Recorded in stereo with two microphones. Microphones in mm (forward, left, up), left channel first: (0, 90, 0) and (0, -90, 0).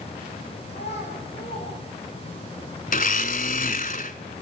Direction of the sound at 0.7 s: 65° left (ahead or behind).